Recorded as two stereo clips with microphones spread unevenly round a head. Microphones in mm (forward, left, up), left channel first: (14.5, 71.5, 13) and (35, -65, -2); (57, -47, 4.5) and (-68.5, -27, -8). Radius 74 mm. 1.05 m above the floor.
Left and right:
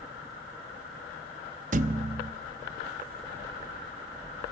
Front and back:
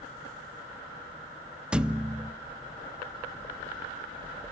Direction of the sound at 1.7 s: 100° right.